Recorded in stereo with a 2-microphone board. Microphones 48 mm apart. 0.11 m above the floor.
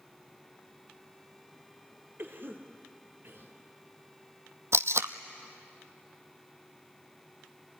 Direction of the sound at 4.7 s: 70° right (ahead or behind).